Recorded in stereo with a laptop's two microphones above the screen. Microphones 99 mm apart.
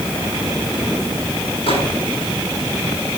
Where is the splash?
I don't hear a splash.